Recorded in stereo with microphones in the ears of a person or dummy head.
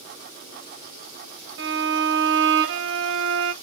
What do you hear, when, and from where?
1.6 s a violin: 70° right (ahead or behind), 0.6 m